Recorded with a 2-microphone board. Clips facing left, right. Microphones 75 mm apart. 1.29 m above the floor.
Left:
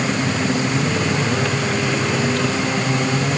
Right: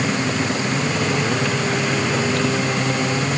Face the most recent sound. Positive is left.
No sound to turn to.